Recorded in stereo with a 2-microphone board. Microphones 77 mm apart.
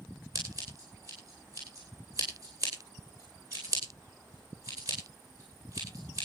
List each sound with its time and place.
0.3 s scissors: 40° right (ahead or behind), 10 m